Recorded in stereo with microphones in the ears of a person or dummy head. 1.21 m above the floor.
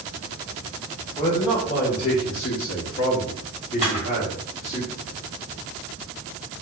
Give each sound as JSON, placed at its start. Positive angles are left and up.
{"t": 1.2, "sound": "a man speaking", "side_deg": 30, "distance_m": 1.1}
{"t": 3.8, "sound": "a camera shutter", "side_deg": 35, "distance_m": 1.8}